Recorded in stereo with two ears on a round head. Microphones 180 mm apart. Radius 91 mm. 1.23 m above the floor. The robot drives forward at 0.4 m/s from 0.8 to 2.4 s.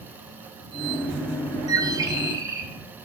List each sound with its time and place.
1.7 s a bird: 20° right (ahead or behind), 1.2 m; by 2.7 s 15° right (ahead or behind), 1.4 m